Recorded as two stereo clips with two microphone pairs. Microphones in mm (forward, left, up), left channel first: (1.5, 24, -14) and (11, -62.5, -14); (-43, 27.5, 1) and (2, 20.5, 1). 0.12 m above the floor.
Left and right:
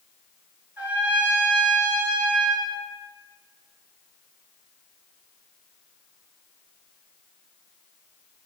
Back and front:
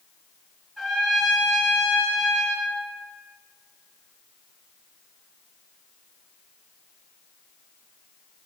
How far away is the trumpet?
About 0.9 m.